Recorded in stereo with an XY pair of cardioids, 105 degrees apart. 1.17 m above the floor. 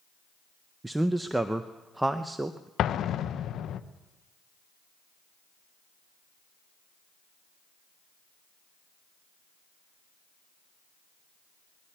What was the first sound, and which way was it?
A man speaking, 10° right.